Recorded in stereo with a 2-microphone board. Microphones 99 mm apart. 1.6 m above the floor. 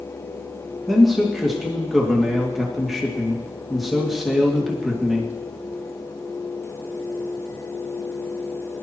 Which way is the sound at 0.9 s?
Centre (ahead or behind).